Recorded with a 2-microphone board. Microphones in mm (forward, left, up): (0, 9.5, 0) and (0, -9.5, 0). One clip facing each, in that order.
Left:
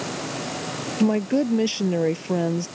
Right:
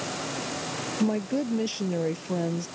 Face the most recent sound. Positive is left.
turn(degrees=25)  # may be behind; listen again after turning